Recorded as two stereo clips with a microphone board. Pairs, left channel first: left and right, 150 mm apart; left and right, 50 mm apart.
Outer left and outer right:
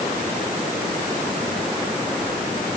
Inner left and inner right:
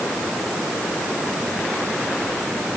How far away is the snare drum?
I don't hear a snare drum.